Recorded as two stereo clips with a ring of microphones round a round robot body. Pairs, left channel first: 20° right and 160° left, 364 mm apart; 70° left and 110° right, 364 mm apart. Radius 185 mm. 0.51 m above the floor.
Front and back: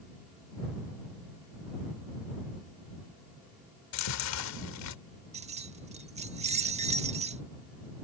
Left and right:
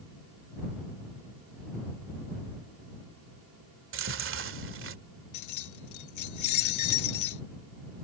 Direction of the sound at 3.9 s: 60° right.